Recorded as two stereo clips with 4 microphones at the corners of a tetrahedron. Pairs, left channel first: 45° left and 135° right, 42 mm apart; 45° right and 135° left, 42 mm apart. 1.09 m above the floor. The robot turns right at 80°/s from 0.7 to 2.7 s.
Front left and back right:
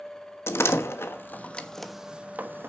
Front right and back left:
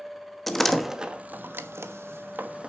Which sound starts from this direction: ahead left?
A door slam, at 0.5 s.